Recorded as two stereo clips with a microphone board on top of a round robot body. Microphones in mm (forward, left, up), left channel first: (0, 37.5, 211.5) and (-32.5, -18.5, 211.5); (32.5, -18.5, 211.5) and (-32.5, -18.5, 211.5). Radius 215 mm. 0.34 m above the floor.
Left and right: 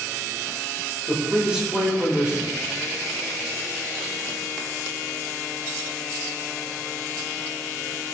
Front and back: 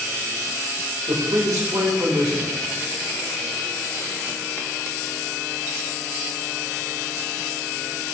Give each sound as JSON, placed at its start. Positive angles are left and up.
{"t": 1.1, "sound": "a man speaking", "azimuth_deg": 165, "distance_m": 3.0}